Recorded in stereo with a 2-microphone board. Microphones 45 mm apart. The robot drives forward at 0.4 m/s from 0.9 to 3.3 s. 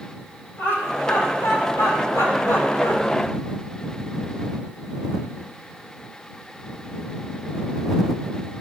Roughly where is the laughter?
Left.